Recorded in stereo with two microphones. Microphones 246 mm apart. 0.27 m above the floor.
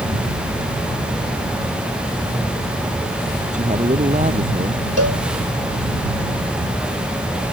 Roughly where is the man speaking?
Right.